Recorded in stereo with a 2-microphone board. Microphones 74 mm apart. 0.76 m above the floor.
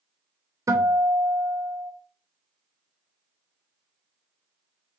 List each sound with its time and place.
0.7 s a guitar: 45° right (ahead or behind), 0.7 m